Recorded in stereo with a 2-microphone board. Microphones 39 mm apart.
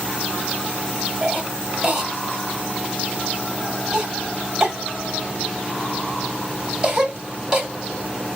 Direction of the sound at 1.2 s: 20° right (ahead or behind).